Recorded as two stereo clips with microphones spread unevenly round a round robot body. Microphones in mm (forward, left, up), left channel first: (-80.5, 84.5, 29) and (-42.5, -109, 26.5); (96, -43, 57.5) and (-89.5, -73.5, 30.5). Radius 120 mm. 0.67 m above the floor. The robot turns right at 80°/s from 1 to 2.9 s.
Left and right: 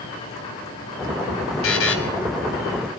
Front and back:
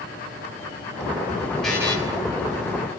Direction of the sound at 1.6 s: 100° left.